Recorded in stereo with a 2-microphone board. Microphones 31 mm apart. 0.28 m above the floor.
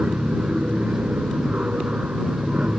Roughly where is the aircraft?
Right.